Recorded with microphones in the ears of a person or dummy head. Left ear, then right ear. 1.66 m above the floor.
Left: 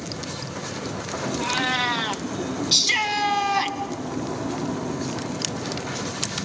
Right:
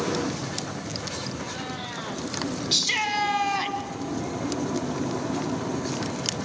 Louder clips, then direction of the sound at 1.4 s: Left 11 dB; 40° left (ahead or behind).